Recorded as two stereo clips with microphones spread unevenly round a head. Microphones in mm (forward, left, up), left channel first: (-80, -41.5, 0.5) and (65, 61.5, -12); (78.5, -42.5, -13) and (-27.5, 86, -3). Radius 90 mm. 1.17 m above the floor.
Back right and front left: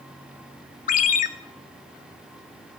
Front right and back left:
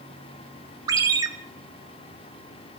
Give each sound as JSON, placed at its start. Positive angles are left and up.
{"t": 0.9, "sound": "a ringtone", "azimuth_deg": -165, "distance_m": 0.6}